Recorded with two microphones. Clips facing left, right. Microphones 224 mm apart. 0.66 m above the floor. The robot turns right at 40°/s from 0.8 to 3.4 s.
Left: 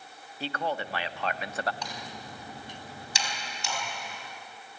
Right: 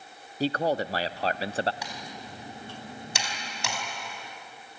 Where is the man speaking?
85° right, 0.6 m; by 1.7 s 50° right, 0.6 m.